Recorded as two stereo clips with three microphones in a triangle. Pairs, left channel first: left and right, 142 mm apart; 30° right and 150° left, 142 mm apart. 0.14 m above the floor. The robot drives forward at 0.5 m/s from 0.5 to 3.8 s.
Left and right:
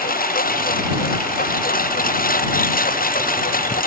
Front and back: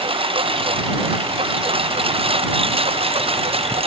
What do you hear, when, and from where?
0.0 s a lawn mower: 100° left